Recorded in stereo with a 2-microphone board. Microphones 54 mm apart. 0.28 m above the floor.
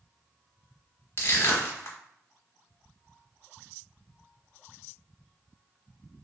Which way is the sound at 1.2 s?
50° left (ahead or behind).